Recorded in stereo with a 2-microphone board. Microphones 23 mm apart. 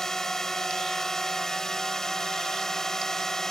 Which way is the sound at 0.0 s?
25° left (ahead or behind).